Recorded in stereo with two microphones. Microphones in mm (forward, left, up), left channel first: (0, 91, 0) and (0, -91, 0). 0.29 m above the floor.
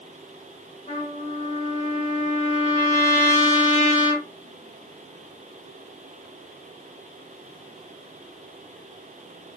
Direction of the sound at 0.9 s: 40° left (ahead or behind).